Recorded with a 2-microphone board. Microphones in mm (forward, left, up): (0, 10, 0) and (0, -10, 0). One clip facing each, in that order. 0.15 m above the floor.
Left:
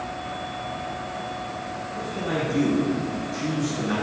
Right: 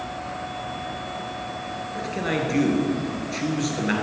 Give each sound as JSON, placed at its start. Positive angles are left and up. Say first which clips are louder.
{"t": 1.9, "sound": "a man speaking", "louder": "right 2 dB", "side_deg": -60, "distance_m": 2.5}